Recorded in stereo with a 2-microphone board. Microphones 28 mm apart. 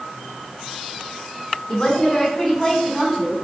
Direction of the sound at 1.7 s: 25° left (ahead or behind).